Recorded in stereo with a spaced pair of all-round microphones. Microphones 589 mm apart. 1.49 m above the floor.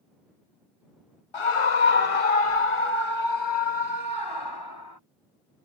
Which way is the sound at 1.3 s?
55° left (ahead or behind).